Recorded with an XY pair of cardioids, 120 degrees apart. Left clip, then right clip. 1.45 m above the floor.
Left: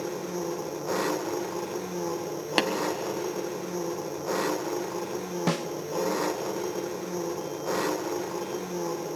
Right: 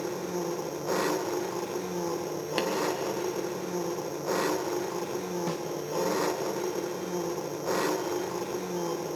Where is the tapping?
45° left, 1.4 m.